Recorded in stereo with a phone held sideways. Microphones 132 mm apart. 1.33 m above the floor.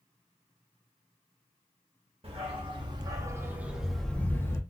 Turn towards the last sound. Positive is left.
turn(degrees=20)  # may be behind; listen again after turning